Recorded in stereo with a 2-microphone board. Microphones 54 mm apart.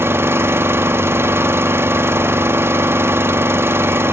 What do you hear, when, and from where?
0.0 s an engine running: 45° right (ahead or behind), 1.5 m